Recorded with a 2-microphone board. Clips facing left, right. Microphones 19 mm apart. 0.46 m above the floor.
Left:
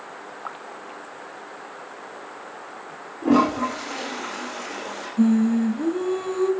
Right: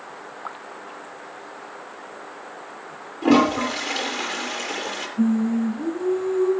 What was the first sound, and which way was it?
A toilet flushing, 65° right (ahead or behind).